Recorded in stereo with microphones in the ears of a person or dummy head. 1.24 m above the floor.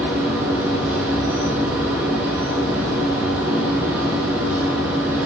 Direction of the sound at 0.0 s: 10° right (ahead or behind).